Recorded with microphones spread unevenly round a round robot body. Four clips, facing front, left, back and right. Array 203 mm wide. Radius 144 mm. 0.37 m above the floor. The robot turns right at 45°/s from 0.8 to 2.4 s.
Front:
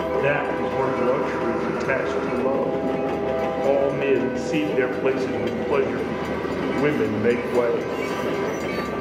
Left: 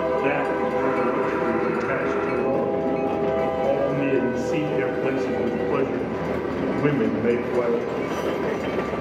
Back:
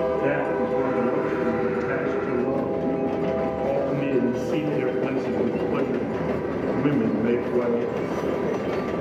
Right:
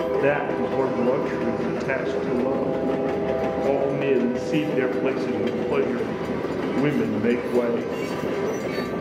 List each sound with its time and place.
0.2 s a man speaking: 60° right, 1.5 m; by 8.0 s 10° left, 1.5 m